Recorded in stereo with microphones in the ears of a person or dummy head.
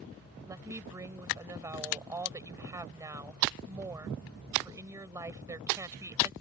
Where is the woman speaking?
15° right (ahead or behind).